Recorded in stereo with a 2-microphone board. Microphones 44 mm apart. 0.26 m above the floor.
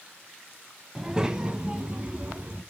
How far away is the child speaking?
About 1.4 m.